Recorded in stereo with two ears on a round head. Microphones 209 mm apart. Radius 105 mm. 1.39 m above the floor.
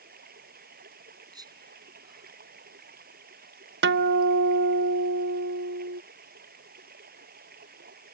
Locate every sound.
0.0 s running water: 40° right (ahead or behind)
1.3 s whispering: 20° right (ahead or behind)
3.8 s a guitar: 50° right (ahead or behind)